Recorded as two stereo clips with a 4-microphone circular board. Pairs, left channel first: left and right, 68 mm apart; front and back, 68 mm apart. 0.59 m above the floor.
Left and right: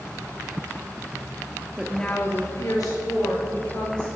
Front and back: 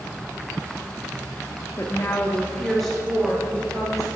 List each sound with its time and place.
1.8 s a woman speaking: 20° right, 0.9 m; by 4.1 s 95° left, 3.5 m